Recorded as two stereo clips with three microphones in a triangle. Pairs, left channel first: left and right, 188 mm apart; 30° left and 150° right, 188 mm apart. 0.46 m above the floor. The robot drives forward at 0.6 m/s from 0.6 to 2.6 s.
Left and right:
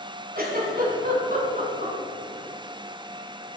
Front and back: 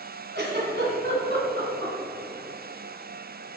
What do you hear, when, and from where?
0.3 s a giggle: 125° right, 3.5 m; by 1.9 s 135° right, 4 m